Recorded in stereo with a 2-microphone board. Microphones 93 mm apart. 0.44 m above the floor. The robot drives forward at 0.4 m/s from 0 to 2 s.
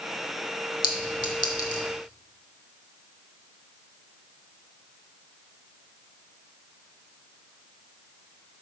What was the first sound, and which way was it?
A clink, 60° left (ahead or behind).